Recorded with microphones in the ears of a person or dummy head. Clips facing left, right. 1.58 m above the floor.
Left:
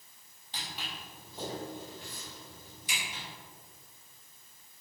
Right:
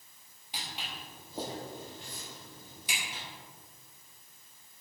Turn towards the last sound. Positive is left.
turn(degrees=-60)  # may be behind; listen again after turning